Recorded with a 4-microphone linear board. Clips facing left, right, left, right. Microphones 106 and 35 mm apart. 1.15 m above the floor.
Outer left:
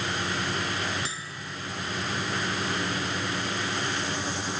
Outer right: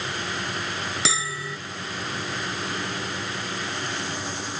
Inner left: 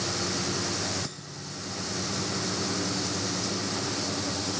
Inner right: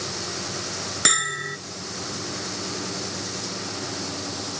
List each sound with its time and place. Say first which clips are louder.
1.1 s a bell: outer right 8 dB, inner right 16 dB; 85° right